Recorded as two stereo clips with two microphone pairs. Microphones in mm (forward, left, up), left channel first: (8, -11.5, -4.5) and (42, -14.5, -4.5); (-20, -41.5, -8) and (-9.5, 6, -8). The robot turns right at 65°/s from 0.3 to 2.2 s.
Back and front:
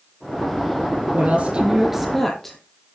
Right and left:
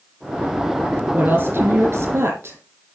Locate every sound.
1.1 s a woman speaking: 25° left, 4 m; by 2.6 s 95° left, 4 m